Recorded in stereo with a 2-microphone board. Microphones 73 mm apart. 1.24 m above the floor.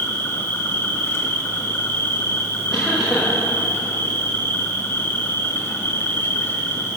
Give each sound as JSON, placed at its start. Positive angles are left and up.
{"t": 0.0, "sound": "an insect", "side_deg": 30, "distance_m": 1.0}
{"t": 2.7, "sound": "a cough", "side_deg": -5, "distance_m": 1.2}